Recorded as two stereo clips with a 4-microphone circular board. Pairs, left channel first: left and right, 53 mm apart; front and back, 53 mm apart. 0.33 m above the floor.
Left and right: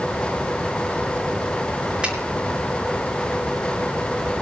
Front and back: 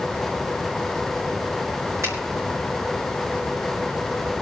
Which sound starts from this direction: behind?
A finger snap, at 2.0 s.